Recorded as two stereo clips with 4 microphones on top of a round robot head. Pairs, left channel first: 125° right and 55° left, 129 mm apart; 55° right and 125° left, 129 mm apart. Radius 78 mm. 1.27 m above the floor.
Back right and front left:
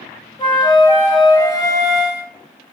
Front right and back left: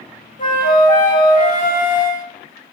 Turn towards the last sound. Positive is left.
turn(degrees=-65)